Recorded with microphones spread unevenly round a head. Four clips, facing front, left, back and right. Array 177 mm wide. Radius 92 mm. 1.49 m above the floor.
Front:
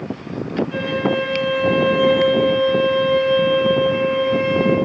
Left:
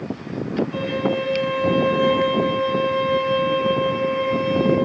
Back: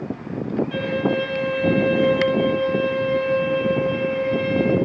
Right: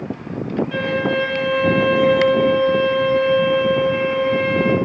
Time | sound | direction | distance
0.7 | a violin | 85° right | 7.5 m